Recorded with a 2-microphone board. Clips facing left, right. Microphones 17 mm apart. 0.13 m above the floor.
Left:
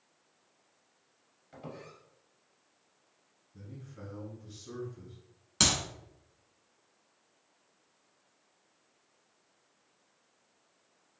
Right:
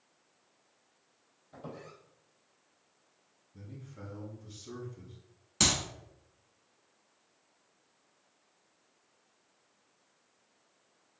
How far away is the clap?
About 1.0 m.